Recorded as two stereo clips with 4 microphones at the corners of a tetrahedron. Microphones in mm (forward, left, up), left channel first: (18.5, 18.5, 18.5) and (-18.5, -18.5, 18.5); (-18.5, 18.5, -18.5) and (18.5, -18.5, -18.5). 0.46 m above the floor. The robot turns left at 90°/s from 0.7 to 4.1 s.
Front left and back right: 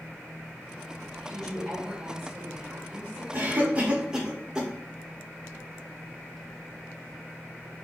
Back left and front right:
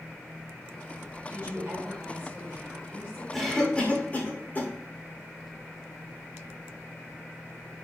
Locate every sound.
1.3 s a woman speaking: 10° right, 1.4 m; by 3.2 s 175° left, 1.4 m
3.3 s a cough: 130° right, 0.9 m; by 4.7 s 160° left, 0.9 m